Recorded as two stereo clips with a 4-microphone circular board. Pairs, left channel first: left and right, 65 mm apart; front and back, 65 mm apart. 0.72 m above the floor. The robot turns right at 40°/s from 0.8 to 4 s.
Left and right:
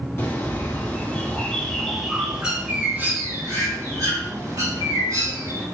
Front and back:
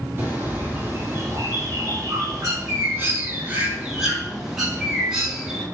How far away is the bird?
About 1.8 m.